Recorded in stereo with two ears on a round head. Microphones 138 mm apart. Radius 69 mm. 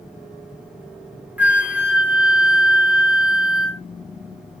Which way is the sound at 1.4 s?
10° right (ahead or behind).